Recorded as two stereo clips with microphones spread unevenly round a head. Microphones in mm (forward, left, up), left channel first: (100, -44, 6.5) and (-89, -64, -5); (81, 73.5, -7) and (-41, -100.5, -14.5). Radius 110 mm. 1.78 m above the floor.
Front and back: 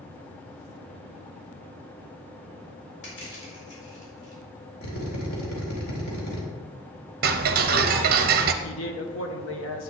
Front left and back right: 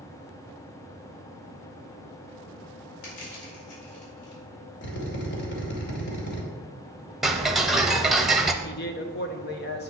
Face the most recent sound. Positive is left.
turn(degrees=15)